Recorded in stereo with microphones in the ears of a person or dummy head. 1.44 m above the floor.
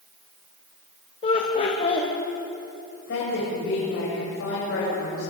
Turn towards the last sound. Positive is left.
turn(degrees=70)  # may be behind; listen again after turning